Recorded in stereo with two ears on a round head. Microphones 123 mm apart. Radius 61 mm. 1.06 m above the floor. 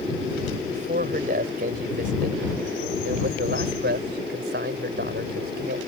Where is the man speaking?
60° right (ahead or behind); by 5.8 s 75° right (ahead or behind).